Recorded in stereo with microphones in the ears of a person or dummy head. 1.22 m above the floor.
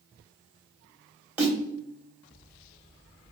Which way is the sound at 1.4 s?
10° right (ahead or behind).